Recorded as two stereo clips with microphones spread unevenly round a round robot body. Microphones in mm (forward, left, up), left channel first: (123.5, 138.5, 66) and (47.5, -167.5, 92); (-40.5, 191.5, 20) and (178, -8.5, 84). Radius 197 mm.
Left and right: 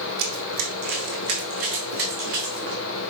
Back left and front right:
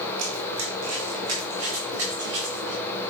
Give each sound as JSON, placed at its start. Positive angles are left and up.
{"t": 0.2, "sound": "running footsteps", "azimuth_deg": -85, "distance_m": 1.5}